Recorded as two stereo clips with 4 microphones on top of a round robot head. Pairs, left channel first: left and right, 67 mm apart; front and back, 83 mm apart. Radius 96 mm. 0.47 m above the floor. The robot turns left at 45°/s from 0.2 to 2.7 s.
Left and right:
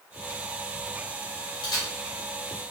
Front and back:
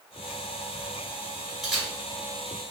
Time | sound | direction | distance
1.6 | a camera shutter | 95° left | 1.8 m